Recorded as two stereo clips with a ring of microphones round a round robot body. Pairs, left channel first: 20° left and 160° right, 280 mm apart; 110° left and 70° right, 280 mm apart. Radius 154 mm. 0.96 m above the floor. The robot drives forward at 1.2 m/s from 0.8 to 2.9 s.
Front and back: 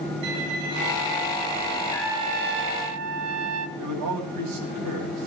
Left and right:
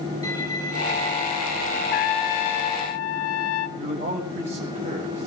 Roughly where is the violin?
Behind.